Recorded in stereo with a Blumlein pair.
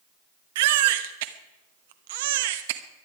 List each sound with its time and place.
0.6 s a baby crying: 55° right, 0.9 m